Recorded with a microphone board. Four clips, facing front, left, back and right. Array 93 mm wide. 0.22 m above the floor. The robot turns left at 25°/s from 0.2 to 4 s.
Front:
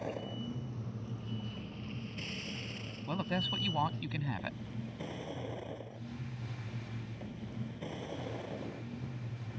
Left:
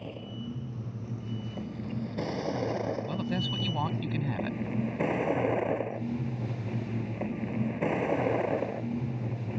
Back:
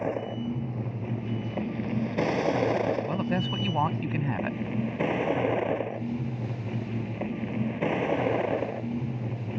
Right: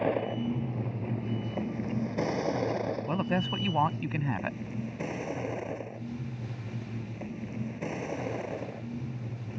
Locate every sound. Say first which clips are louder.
0.0 s a vehicle: right 11 dB, back 10 dB; 120° right; by 9.6 s 145° left
3.1 s a woman speaking: right 3 dB, back 7 dB; 110° right; by 4.6 s 135° right